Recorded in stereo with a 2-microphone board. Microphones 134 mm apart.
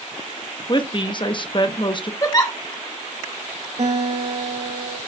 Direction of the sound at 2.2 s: 30° left (ahead or behind).